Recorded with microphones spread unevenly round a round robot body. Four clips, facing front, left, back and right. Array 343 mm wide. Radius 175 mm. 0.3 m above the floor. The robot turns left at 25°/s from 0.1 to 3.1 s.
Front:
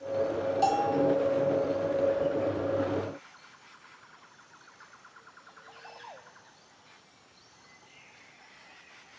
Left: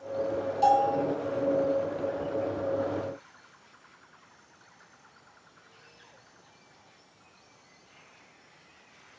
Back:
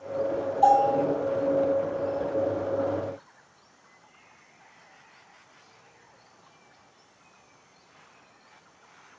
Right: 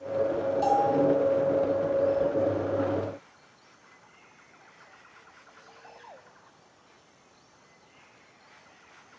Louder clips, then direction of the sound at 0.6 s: Left 1 dB, back 7 dB; 15° left.